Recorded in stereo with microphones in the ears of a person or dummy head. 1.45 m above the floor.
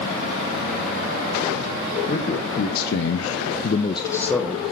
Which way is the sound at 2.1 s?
40° left (ahead or behind).